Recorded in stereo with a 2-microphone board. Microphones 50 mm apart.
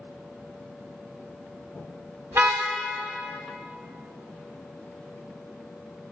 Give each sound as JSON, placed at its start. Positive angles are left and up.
{"t": 2.3, "sound": "a car horn", "side_deg": -65, "distance_m": 6.5}